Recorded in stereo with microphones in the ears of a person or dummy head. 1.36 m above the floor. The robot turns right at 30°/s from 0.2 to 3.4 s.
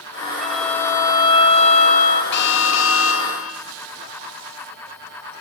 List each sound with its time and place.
0.4 s a violin: straight ahead, 3 m; by 2.2 s 55° left, 3 m
2.3 s an alarm: 65° left, 2.5 m; by 3.6 s 100° left, 2.5 m